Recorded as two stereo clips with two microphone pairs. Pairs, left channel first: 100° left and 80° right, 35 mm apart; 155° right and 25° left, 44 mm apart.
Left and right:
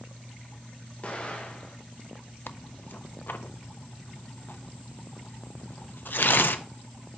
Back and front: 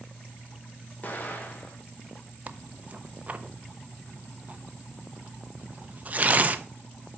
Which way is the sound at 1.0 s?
155° left.